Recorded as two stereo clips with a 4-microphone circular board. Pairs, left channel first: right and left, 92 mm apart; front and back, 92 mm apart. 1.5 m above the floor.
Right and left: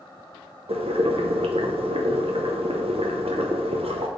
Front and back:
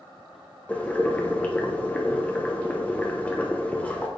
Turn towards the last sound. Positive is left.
turn(degrees=75)